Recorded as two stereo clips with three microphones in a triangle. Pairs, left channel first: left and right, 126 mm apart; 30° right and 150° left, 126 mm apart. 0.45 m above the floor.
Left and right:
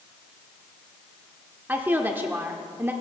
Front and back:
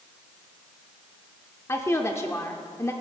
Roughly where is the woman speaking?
Ahead right.